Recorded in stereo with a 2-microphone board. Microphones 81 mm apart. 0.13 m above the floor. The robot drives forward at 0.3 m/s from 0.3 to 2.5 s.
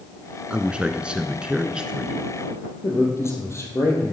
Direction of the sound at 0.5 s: 15° right (ahead or behind).